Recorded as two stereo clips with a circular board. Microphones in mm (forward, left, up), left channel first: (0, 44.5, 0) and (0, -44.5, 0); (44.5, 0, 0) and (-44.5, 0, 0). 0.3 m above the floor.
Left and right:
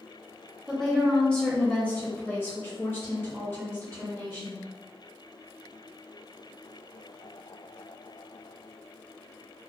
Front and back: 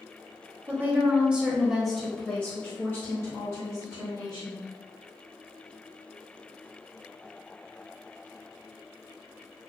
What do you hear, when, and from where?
0.7 s a woman speaking: 170° left, 1.4 m; by 4.6 s 35° left, 2.5 m